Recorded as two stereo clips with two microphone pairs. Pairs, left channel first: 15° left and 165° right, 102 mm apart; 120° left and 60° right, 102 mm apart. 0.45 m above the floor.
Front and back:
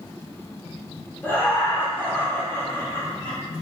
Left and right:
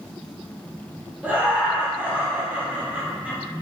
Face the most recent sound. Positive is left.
turn(degrees=-10)